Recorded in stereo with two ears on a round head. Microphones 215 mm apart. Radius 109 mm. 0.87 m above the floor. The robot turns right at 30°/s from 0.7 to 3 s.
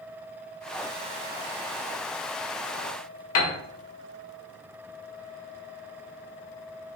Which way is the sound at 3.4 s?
65° left (ahead or behind).